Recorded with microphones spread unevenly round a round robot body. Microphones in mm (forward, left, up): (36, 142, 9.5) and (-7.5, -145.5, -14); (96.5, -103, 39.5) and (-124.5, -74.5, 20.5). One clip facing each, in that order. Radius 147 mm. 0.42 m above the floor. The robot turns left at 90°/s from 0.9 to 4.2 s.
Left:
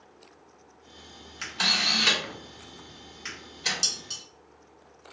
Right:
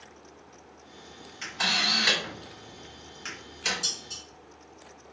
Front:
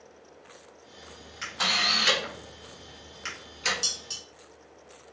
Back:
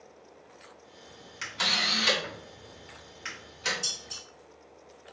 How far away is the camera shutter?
About 1.9 m.